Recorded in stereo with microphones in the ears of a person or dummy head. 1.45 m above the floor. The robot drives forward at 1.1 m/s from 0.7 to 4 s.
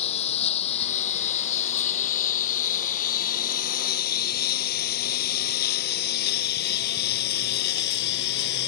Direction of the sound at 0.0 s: 40° left (ahead or behind).